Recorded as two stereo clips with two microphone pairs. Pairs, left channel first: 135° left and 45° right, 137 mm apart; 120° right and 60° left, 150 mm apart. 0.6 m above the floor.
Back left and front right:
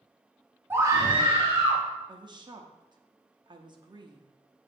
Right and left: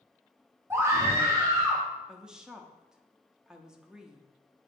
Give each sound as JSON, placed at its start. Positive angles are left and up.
{"t": 0.7, "sound": "a scream", "azimuth_deg": 5, "distance_m": 0.8}
{"t": 2.1, "sound": "a woman speaking", "azimuth_deg": -25, "distance_m": 0.6}